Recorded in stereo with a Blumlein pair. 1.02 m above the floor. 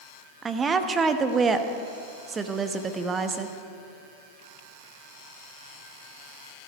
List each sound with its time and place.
0.4 s a woman speaking: 20° right, 1.0 m